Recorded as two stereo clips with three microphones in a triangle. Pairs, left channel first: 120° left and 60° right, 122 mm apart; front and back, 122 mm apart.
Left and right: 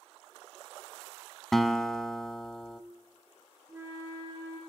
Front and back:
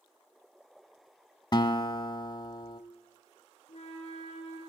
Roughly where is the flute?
Ahead.